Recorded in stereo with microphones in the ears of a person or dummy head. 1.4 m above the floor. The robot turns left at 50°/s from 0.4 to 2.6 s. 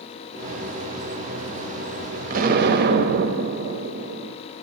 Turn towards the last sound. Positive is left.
turn(degrees=-60)  # may be behind; listen again after turning